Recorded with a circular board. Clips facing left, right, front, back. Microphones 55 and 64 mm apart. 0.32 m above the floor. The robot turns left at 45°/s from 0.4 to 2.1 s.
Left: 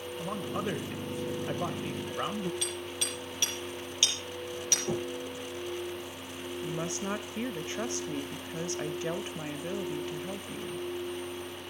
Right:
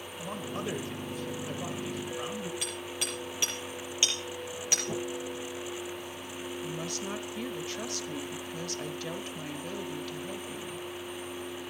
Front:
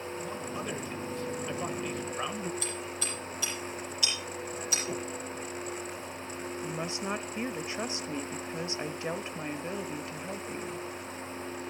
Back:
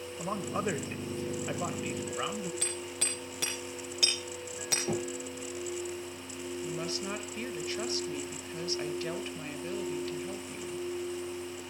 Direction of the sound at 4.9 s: 140° left.